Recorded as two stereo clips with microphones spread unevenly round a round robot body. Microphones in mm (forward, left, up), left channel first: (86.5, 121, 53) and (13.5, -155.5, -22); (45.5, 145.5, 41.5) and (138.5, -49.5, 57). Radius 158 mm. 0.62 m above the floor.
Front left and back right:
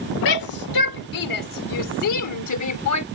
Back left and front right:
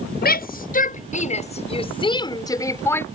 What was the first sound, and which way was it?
A shout, 75° left.